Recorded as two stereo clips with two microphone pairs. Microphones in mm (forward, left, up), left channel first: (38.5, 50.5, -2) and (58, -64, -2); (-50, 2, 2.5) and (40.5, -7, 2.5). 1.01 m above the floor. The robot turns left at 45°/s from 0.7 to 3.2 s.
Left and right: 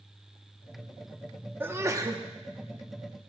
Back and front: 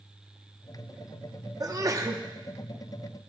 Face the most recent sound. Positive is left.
turn(degrees=-90)